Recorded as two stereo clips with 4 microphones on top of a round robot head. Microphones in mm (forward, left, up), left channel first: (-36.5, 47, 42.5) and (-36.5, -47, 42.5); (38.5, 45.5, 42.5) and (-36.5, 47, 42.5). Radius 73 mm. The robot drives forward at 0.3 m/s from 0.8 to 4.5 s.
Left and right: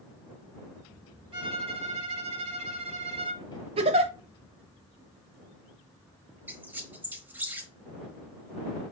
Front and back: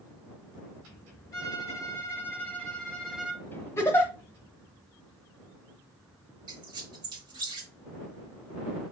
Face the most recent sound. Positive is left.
turn(degrees=-160)